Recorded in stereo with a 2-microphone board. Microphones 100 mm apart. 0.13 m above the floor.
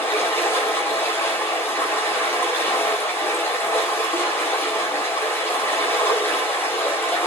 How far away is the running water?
About 9.5 m.